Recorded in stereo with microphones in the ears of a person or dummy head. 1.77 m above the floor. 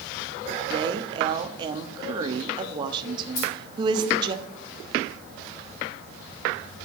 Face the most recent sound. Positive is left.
turn(degrees=70)  # may be behind; listen again after turning